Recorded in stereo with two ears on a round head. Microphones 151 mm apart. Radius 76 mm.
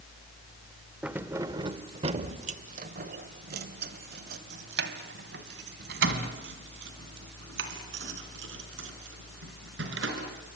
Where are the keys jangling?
10° right (ahead or behind), 1.0 m; by 10.6 s 80° right, 5 m.